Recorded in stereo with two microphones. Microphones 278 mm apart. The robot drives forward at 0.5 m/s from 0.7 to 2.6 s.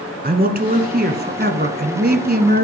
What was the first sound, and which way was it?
A man speaking, 35° right (ahead or behind).